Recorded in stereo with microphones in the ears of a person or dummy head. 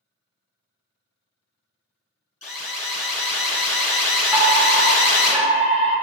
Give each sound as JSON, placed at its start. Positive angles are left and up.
{"t": 2.4, "sound": "an alarm", "side_deg": 10, "distance_m": 1.5}
{"t": 4.3, "sound": "a fire alarm", "side_deg": -10, "distance_m": 0.8}